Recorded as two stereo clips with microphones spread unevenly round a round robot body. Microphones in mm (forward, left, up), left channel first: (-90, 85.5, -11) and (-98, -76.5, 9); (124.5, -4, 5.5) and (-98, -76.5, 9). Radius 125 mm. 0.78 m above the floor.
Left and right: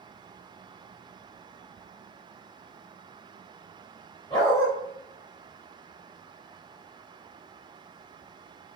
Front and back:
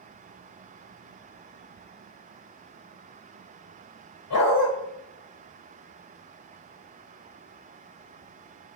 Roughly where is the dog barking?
Ahead.